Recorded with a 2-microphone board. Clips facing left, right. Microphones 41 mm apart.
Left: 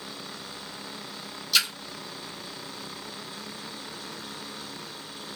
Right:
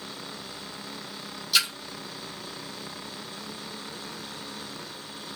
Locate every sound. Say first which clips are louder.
1.5 s a splash: even; 15° right (ahead or behind), 2 m